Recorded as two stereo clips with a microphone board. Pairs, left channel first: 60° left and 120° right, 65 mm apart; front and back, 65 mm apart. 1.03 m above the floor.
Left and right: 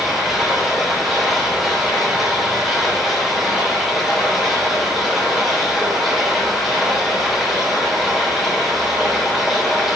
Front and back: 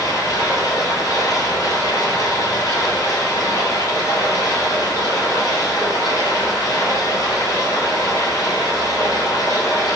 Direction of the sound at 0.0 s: 35° right.